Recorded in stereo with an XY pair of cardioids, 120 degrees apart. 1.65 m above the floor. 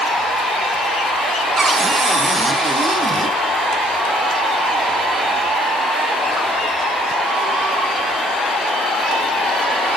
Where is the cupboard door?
30° right, 1.2 m.